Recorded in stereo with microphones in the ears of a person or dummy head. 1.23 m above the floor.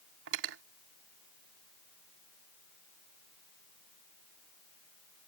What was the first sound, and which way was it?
Cutlery clinking, 65° right (ahead or behind).